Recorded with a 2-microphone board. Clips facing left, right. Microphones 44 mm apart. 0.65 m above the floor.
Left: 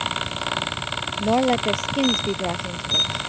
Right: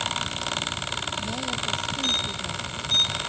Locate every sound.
1.2 s a woman speaking: 60° left (ahead or behind)